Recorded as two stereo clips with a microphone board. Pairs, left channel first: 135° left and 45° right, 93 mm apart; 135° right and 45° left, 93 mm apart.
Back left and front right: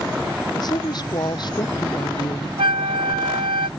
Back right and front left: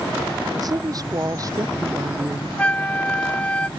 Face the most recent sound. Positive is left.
turn(degrees=-60)